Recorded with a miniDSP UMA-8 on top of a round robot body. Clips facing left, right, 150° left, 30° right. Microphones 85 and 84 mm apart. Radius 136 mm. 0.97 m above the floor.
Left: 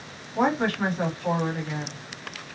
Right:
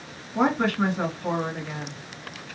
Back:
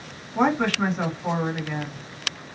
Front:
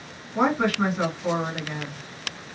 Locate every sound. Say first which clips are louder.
0.3 s a woman speaking: right 1 dB, even; 110° right, 2.5 m